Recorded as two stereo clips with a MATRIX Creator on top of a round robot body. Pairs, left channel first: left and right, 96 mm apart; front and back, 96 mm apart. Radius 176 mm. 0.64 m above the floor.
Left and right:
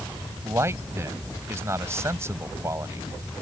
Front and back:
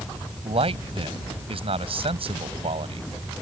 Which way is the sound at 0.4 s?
155° right.